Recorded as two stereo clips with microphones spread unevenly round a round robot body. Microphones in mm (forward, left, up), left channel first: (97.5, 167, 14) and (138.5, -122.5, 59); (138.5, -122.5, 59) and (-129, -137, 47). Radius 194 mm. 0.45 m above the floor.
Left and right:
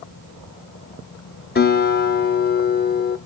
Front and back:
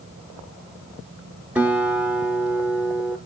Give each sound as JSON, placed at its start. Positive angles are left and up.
{"t": 1.6, "sound": "a guitar", "azimuth_deg": 105, "distance_m": 0.7}